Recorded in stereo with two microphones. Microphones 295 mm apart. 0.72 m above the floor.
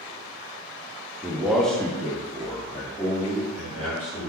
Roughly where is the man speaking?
Centre.